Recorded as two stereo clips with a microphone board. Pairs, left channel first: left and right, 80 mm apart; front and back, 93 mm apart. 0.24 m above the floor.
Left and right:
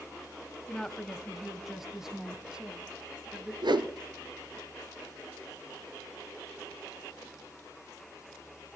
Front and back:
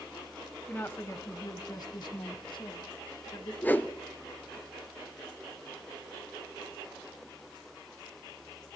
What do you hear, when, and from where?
0.7 s a woman speaking: 25° left, 1.2 m; by 3.5 s 15° right, 3 m
3.6 s a whoosh: 70° right, 1.1 m